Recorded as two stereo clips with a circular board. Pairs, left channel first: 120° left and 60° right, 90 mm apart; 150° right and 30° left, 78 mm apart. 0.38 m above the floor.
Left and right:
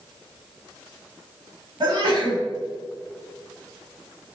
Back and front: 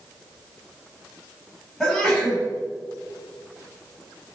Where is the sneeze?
70° right, 1.7 m.